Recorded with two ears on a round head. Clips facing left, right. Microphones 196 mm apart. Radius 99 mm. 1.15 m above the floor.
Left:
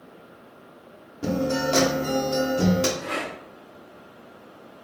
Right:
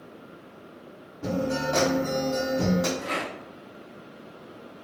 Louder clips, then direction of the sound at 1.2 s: Left 3 dB; 35° left (ahead or behind).